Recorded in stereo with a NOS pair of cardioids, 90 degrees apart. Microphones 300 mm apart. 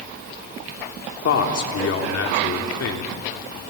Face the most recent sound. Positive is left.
turn(degrees=55)